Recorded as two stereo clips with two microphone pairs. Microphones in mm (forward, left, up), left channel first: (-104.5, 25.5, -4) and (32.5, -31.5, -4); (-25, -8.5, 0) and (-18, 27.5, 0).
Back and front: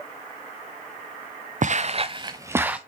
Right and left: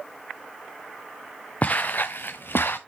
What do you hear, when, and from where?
1.6 s footsteps: 55° right, 0.8 m; by 2.8 s 105° right, 0.9 m